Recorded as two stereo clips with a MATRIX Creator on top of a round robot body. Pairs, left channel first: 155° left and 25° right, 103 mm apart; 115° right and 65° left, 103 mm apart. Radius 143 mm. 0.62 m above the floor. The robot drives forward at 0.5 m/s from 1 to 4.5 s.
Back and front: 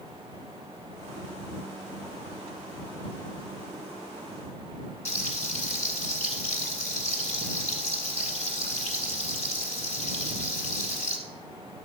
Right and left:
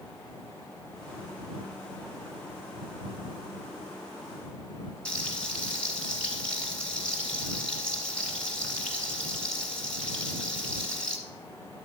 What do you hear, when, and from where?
5.0 s frying: 165° left, 1.3 m